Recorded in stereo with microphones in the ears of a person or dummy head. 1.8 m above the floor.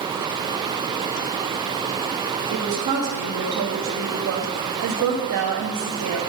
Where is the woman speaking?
70° right (ahead or behind), 1.2 m.